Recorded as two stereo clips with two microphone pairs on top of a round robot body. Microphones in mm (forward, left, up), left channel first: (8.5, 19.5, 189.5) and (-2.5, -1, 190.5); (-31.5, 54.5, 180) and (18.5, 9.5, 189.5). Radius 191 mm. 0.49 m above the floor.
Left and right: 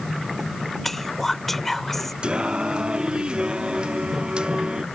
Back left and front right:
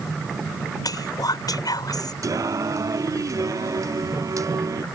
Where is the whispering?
140° left.